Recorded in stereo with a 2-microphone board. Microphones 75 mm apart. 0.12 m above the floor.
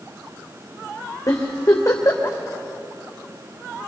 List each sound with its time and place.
1.3 s a giggle: 45° left (ahead or behind), 3.5 m